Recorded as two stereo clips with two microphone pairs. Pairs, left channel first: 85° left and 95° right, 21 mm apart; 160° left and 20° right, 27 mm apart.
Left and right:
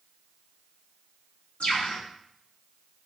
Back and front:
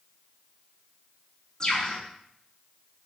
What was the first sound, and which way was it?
A bird, 100° left.